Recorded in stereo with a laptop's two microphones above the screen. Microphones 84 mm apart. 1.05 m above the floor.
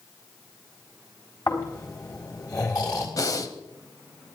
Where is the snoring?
45° left (ahead or behind), 4 m.